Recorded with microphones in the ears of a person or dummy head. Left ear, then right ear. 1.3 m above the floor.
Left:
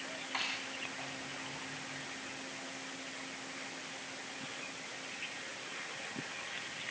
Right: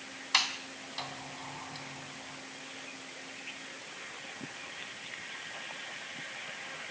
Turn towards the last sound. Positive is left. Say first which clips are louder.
# right 9 dB
turn(degrees=-60)  # may be behind; listen again after turning